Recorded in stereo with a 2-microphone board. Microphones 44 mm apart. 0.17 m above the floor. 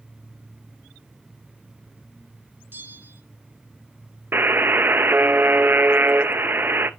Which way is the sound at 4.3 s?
55° right (ahead or behind).